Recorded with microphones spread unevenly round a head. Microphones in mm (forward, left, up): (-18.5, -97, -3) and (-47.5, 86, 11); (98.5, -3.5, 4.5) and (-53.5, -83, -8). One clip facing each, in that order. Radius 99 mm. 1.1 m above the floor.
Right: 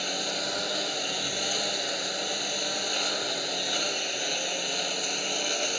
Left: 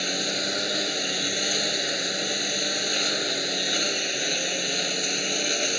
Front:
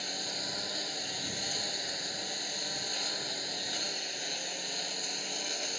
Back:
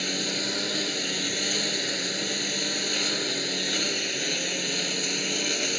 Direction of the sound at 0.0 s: 165° left.